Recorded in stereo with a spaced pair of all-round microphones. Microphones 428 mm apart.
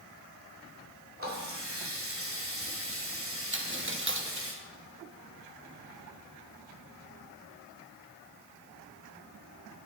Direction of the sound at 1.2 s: 30° right (ahead or behind).